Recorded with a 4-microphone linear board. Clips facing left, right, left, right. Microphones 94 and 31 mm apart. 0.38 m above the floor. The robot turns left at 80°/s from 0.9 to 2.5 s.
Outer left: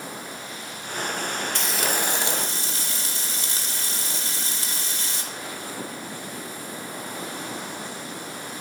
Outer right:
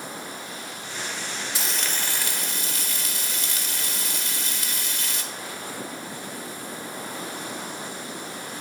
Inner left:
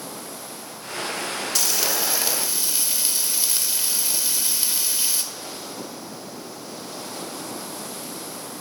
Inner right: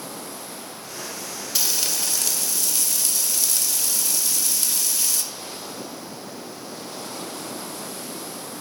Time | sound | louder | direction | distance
1.6 | frying | outer left 5 dB, even | 170° right | 1.4 m